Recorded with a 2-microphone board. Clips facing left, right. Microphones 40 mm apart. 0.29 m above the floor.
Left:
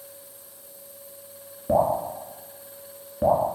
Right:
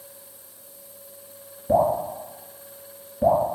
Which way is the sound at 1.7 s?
20° left (ahead or behind).